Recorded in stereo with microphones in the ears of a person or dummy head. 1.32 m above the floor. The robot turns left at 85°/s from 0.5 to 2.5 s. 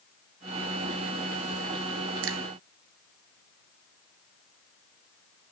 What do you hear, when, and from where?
2.2 s a finger snap: 70° right (ahead or behind), 1.1 m; by 2.4 s 85° right, 1.1 m